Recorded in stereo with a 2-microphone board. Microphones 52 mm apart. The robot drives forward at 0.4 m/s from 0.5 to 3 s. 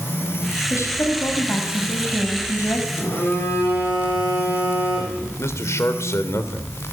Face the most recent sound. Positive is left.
turn(degrees=65)  # may be behind; listen again after turning